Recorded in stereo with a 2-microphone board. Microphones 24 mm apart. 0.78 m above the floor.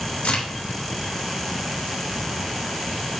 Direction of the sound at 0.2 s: 65° left (ahead or behind).